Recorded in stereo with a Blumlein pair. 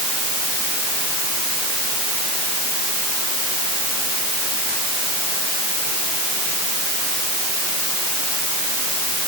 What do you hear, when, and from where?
Only background noise.